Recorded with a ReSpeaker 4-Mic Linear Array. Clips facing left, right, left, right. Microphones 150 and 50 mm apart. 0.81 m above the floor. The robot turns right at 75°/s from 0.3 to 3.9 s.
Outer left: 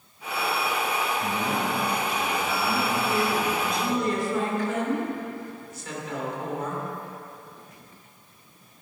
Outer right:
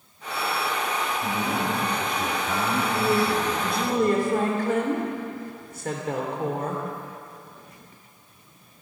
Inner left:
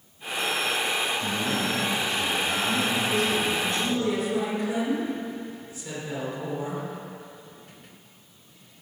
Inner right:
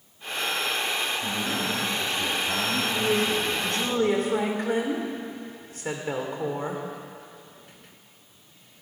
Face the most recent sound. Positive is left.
turn(degrees=-60)